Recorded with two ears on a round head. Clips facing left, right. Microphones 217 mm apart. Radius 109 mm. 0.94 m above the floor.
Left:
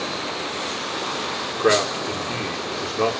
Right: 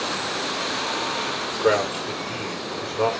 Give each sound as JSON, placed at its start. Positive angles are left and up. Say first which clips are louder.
{"t": 1.6, "sound": "a man speaking", "louder": "left 1 dB", "side_deg": 30, "distance_m": 2.5}